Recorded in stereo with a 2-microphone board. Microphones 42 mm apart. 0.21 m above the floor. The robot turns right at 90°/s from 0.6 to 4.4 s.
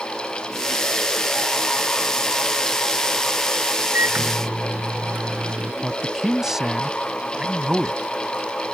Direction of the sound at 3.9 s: 105° right.